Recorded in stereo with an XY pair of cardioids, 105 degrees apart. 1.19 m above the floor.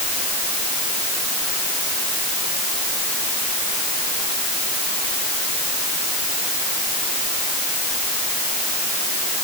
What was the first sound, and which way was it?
Only background noise.